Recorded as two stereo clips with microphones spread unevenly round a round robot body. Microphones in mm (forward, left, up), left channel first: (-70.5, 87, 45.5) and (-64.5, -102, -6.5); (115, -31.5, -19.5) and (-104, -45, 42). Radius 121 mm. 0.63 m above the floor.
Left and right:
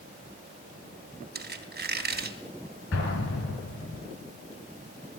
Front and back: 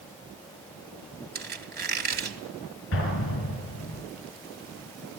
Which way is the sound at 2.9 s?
45° left.